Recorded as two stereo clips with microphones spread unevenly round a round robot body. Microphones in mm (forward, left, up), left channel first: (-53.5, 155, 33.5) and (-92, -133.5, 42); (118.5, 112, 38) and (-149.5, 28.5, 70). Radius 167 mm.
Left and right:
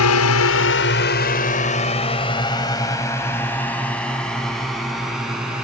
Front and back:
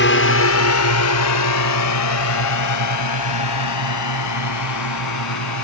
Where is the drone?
55° left; by 5.6 s 10° right.